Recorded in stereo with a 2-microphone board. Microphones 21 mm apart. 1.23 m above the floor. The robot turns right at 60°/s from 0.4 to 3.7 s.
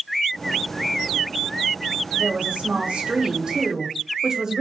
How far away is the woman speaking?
About 0.9 m.